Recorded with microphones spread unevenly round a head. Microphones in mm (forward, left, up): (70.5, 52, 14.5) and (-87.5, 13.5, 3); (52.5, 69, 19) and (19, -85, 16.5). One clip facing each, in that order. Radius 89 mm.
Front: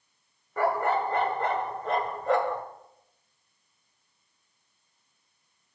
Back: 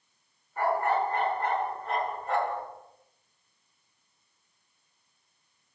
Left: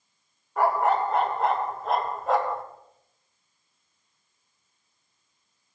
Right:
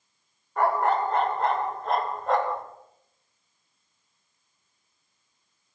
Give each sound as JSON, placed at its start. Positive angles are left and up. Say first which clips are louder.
{"t": 0.6, "sound": "a dog barking", "louder": "front 1 dB, left 1 dB", "azimuth_deg": -10, "distance_m": 1.7}